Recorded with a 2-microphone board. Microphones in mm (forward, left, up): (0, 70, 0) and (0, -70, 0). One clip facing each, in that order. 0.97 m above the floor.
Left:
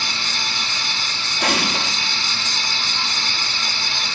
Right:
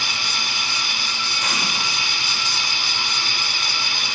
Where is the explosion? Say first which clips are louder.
Left 8 dB; 65° left (ahead or behind), 1.2 m.